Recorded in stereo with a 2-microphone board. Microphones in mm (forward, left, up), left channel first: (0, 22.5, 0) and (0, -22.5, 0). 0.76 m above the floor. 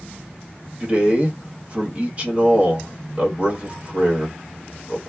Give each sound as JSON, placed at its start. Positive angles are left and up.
{"t": 0.8, "sound": "a man speaking", "side_deg": -30, "distance_m": 1.3}